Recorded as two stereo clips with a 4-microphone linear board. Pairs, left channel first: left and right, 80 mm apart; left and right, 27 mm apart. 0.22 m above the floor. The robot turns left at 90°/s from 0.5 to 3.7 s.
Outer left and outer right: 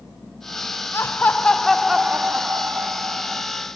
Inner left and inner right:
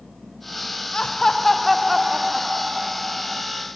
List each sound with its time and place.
0.9 s laughter: 30° left (ahead or behind), 1.1 m; by 3.4 s 15° right (ahead or behind), 1.1 m